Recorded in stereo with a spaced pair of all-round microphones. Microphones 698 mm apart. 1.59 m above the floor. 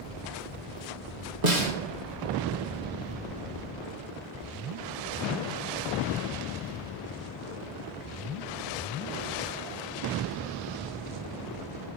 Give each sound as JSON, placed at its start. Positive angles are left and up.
{"t": 1.4, "sound": "a snare drum", "side_deg": -75, "distance_m": 1.4}